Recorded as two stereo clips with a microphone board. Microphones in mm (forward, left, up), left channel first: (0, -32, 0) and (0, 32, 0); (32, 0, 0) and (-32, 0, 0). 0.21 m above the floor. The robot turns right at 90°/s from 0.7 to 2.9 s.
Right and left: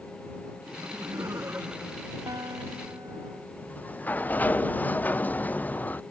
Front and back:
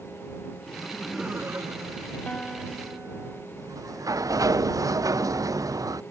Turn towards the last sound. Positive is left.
turn(degrees=-155)